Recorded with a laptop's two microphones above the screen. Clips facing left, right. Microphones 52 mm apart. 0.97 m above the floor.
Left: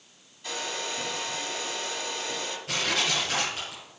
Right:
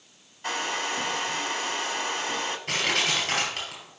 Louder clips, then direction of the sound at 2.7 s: Right 1 dB; 75° right (ahead or behind).